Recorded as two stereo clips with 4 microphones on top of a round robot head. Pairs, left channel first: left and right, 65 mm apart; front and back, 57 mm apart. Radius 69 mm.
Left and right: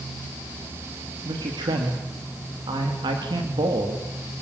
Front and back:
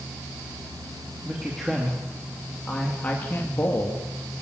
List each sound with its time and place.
1.2 s a man speaking: 100° right, 3 m; by 4.0 s 55° right, 3 m